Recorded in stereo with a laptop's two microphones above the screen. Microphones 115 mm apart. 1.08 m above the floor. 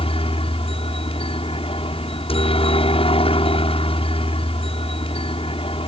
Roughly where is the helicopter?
Left.